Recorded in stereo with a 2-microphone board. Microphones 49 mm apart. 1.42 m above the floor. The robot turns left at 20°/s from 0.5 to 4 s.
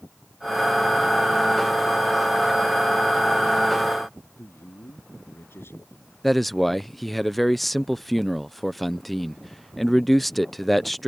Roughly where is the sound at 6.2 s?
Centre.